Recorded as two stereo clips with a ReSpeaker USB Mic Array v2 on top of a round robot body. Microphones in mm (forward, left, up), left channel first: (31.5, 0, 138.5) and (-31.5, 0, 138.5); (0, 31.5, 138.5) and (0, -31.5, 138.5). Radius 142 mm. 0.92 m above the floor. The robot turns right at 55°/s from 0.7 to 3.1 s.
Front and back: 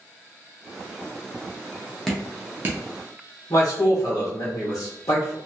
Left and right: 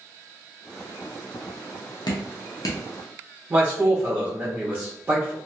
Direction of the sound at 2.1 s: 85° left.